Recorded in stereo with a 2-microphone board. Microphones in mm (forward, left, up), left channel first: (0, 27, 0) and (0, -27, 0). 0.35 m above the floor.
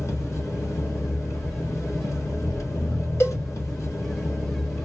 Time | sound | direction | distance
0.0 | an engine running | 70° left (ahead or behind) | 1.3 m
3.2 | a cowbell | 55° left (ahead or behind) | 1.5 m